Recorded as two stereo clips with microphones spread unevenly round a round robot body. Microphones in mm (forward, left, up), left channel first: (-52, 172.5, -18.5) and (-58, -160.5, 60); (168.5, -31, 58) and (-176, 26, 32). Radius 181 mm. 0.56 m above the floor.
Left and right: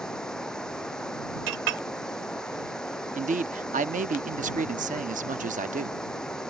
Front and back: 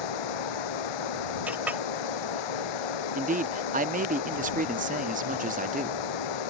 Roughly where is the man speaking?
Behind.